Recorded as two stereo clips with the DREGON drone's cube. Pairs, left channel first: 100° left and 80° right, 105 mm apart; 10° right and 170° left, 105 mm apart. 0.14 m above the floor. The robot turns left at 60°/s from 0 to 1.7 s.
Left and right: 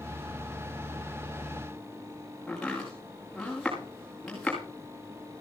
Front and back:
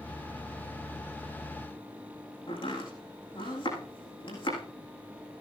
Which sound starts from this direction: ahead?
Chopping, at 2.5 s.